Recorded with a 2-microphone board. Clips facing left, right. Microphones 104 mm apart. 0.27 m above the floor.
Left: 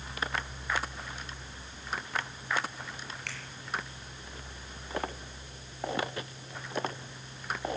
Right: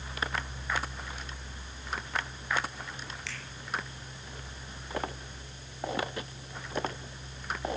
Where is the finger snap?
50° left (ahead or behind), 4.5 m.